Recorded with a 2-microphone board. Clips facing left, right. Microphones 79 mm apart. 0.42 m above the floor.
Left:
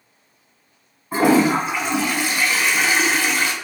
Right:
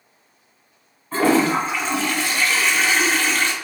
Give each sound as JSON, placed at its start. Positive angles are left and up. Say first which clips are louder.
{"t": 1.1, "sound": "a toilet flushing", "louder": "left 2 dB", "side_deg": 15, "distance_m": 0.5}